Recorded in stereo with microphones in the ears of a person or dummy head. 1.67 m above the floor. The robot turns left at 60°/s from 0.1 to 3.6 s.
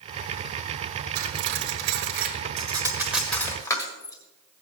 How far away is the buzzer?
No buzzer in this recording.